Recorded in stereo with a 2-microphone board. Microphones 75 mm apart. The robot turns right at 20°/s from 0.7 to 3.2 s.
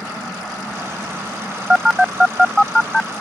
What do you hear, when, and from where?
1.7 s a phone buzzing: 10° right (ahead or behind); by 3.1 s 10° left (ahead or behind)